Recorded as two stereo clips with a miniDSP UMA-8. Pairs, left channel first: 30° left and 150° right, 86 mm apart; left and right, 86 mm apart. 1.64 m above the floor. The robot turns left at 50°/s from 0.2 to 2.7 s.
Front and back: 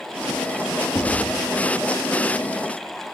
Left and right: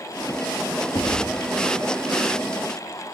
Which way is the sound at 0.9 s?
70° left.